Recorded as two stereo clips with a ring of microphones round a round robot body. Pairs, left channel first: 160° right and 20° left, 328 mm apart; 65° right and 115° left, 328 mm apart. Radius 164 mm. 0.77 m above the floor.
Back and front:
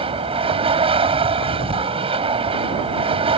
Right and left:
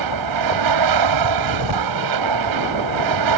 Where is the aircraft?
95° left.